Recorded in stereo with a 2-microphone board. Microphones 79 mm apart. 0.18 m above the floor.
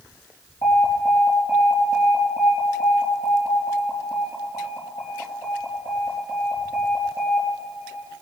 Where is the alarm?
60° left (ahead or behind), 5 m.